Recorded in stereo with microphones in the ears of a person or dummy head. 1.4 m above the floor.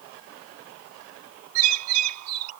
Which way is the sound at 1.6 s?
85° right.